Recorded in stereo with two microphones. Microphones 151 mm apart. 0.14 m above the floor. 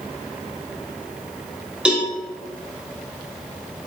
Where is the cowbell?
5° right (ahead or behind), 0.6 m.